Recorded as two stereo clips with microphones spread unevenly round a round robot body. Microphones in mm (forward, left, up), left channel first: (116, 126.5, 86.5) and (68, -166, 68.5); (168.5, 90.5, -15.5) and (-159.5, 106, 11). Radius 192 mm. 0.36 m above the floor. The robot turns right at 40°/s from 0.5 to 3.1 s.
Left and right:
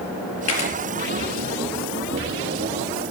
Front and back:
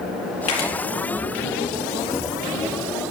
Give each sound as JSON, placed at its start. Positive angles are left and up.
{"t": 0.5, "sound": "a camera shutter", "azimuth_deg": 45, "distance_m": 5.0}